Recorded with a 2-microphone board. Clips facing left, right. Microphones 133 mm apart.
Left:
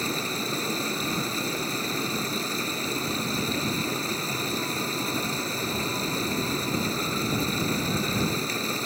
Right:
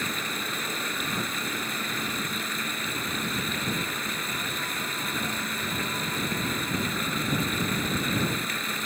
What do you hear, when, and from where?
0.0 s running water: 35° left (ahead or behind)